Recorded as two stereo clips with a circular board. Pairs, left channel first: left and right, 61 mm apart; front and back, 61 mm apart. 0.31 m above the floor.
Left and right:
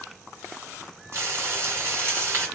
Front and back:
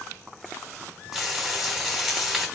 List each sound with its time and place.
1.1 s frying: 95° right, 2 m